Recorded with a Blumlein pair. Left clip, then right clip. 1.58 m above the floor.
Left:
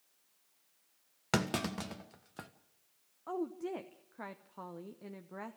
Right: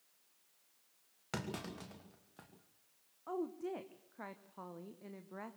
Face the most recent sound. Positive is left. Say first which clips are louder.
# left 2 dB
turn(degrees=10)